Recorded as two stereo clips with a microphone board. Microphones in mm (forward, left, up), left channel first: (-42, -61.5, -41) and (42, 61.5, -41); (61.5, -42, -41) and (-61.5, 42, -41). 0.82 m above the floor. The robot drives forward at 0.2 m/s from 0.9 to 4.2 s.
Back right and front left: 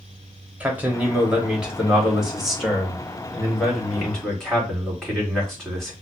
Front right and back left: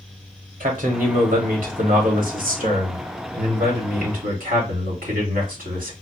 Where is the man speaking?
135° left, 1.3 m; by 5.9 s 150° left, 1.8 m.